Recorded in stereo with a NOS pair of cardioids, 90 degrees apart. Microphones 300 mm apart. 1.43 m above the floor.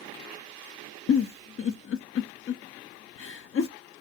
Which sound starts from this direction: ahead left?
A giggle, at 1.1 s.